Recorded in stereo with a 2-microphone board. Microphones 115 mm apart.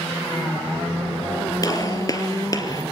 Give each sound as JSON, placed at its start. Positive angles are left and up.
{"t": 1.6, "sound": "a gunshot", "side_deg": 35, "distance_m": 2.5}